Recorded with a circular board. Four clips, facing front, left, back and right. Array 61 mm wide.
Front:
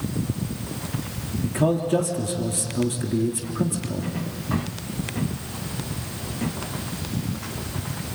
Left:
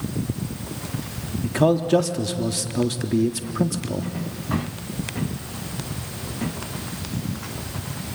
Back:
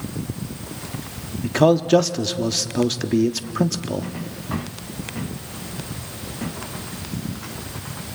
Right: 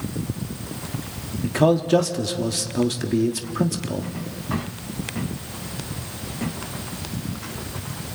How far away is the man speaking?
About 1.3 m.